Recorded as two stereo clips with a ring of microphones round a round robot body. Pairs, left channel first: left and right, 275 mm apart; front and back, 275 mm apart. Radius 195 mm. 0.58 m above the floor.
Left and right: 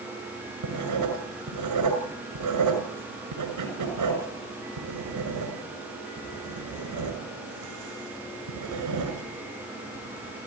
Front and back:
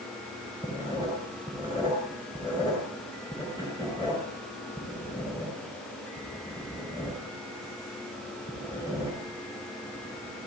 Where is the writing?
80° right, 6.5 m.